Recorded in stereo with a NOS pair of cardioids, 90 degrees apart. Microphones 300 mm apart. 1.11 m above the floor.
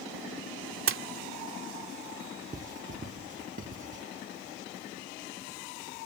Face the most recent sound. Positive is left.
turn(degrees=-25)